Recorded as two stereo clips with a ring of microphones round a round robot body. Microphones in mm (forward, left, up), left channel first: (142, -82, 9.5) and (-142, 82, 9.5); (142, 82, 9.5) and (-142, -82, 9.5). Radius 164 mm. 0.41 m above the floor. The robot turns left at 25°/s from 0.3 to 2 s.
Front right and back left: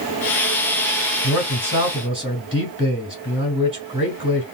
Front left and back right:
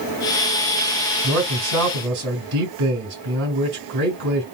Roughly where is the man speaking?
Behind right.